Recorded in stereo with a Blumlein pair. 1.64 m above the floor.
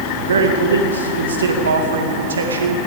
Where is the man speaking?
70° right, 2 m.